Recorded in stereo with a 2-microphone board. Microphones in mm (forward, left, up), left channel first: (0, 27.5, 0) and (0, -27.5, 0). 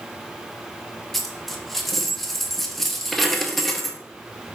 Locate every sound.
1.1 s a dropped coin: 5° left (ahead or behind), 0.5 m